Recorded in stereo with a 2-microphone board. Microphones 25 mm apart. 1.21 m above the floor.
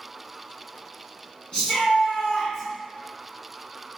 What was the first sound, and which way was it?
A shout, 35° left (ahead or behind).